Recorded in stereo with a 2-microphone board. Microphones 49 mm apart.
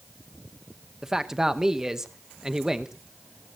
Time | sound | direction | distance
1.0 | a man speaking | 10° right (ahead or behind) | 0.8 m